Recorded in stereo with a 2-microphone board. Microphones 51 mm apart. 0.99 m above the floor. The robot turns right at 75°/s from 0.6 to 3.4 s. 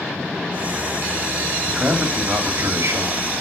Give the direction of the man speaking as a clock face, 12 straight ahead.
5 o'clock.